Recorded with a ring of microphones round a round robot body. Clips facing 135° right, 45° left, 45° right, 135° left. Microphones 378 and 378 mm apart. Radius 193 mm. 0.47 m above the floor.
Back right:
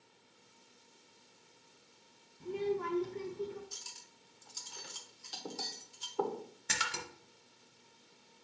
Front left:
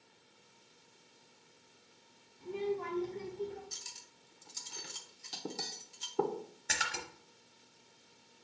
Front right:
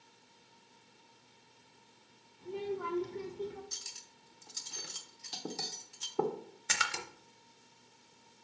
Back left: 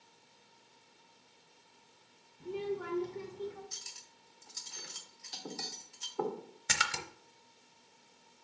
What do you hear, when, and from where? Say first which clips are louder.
2.4 s a child speaking: back right 1 dB, back left 1 dB; 175° left, 0.8 m; by 3.6 s 60° right, 1.0 m
3.7 s cutlery clinking: back right 1 dB, front right 1 dB; 10° right, 0.9 m
6.7 s a splash: even, back left 1 dB; 145° left, 0.9 m